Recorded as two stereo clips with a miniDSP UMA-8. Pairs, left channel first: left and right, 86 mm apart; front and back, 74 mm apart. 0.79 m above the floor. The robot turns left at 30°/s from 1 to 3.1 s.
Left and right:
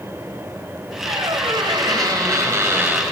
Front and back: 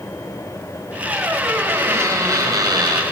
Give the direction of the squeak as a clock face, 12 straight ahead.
3 o'clock.